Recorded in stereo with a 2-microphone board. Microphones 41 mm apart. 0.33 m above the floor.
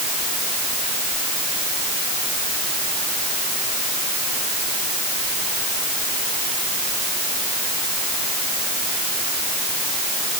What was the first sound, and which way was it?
Only background noise.